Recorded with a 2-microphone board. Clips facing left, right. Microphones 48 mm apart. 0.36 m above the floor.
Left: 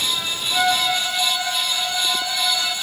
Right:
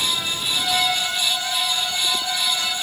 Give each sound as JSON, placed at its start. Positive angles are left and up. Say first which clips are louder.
{"t": 0.5, "sound": "a violin", "louder": "left 3 dB", "side_deg": 45, "distance_m": 1.2}